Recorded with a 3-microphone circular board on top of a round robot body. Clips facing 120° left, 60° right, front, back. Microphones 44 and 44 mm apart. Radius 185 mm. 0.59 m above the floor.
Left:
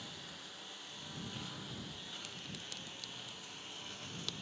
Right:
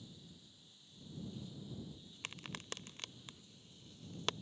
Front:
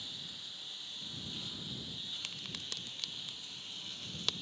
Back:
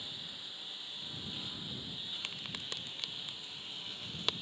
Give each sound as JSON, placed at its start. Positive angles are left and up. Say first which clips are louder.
{"t": 0.0, "sound": "a lawn mower", "louder": "left 9 dB, back 1 dB", "azimuth_deg": 105}
{"t": 2.2, "sound": "a crack", "louder": "even, back 2 dB", "azimuth_deg": -105}